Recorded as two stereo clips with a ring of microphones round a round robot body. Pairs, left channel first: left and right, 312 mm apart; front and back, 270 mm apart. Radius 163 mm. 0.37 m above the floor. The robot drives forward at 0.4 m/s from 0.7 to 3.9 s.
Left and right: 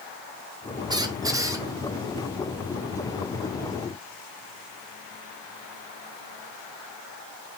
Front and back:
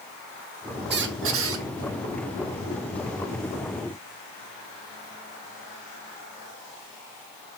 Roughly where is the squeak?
Behind.